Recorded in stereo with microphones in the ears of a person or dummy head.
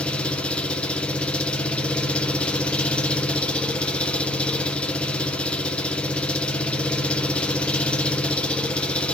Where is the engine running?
5° left (ahead or behind), 0.9 m.